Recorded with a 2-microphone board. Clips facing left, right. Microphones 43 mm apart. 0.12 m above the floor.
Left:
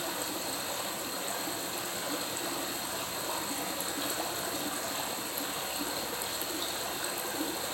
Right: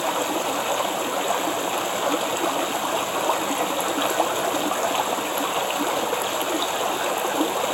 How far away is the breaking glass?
I don't hear breaking glass.